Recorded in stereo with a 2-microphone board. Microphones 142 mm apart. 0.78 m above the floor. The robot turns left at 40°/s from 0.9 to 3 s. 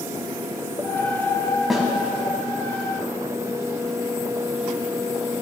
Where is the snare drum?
Centre (ahead or behind), 1.9 m; by 1.9 s 5° right (ahead or behind), 1.9 m.